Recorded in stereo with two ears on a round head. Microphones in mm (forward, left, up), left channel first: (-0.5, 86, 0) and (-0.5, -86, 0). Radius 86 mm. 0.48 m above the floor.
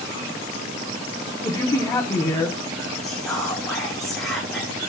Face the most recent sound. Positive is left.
turn(degrees=5)  # may be behind; listen again after turning